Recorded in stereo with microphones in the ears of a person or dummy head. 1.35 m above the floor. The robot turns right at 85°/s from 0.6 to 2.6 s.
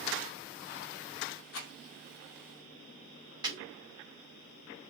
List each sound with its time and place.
1.5 s a rattle: 75° left (ahead or behind), 2 m; by 1.7 s 60° left (ahead or behind), 2 m
3.4 s breaking glass: 15° right (ahead or behind), 3.5 m